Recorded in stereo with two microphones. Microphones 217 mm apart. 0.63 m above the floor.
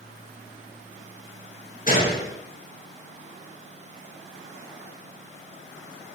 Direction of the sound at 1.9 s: 40° left (ahead or behind).